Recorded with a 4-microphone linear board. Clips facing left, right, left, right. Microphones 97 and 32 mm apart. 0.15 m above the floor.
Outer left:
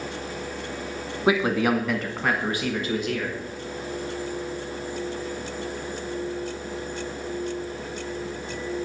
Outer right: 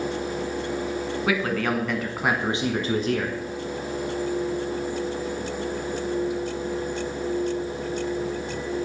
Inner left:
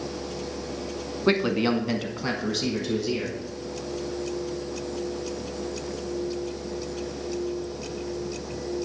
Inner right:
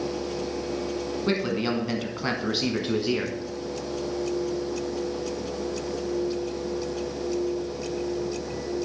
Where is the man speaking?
25° left (ahead or behind), 1.2 m; by 3.4 s 45° right (ahead or behind), 1.5 m.